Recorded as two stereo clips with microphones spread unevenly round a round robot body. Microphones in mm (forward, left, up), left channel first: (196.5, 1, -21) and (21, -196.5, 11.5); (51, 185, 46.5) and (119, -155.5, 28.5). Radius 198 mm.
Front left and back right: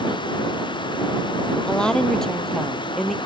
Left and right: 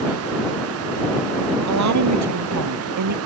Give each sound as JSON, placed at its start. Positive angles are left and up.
{"t": 1.7, "sound": "a woman speaking", "azimuth_deg": -40}